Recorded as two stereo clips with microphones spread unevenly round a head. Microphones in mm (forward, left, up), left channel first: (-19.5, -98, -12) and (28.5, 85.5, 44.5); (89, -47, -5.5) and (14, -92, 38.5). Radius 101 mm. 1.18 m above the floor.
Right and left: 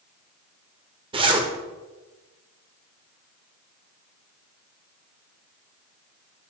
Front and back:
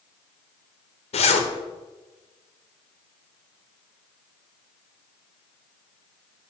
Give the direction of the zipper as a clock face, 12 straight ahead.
11 o'clock.